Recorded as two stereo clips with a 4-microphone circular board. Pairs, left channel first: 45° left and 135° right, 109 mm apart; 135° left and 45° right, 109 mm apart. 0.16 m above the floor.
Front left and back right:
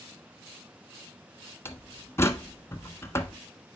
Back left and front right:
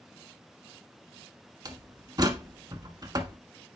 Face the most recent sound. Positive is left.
turn(degrees=-10)